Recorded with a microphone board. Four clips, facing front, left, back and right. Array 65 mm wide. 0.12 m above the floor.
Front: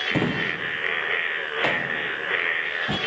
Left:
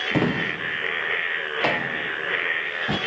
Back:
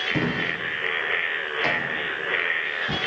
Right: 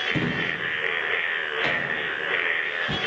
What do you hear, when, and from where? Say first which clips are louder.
0.1 s a drawer: left 6 dB, front 1 dB; 70° left, 2.5 m